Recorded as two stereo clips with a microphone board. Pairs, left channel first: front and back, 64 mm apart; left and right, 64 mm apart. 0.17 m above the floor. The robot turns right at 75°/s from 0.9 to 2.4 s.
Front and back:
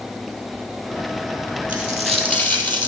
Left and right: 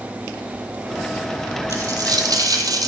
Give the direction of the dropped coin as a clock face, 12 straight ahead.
4 o'clock.